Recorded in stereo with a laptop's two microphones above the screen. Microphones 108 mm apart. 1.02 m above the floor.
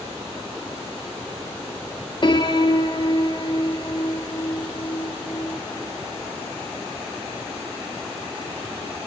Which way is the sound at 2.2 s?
45° left (ahead or behind).